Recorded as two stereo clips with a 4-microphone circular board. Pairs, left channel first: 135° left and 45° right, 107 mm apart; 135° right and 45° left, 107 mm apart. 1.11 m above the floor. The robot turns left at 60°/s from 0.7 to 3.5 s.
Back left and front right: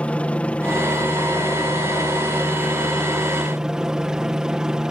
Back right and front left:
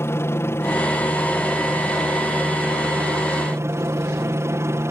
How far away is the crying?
No crying in this recording.